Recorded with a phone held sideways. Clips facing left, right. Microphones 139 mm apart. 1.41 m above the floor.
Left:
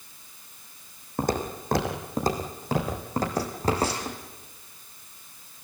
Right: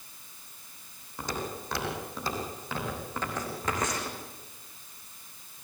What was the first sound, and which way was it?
Footsteps, 50° left (ahead or behind).